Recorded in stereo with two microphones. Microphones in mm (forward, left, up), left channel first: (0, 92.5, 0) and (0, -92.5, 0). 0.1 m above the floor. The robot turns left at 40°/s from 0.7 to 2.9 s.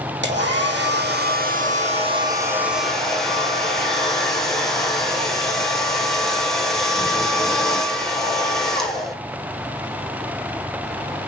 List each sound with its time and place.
0.2 s a hair dryer: 95° right, 3.5 m; by 9.2 s straight behind, 3.5 m